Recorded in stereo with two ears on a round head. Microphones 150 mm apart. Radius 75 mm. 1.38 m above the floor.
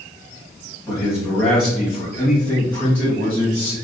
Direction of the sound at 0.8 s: 5° right (ahead or behind).